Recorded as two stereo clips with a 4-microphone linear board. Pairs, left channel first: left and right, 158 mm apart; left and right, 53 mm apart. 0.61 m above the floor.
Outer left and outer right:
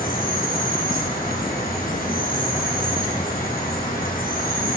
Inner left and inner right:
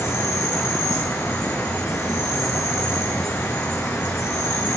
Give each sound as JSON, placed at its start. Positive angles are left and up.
{"t": 0.0, "sound": "an insect", "side_deg": 65, "distance_m": 3.0}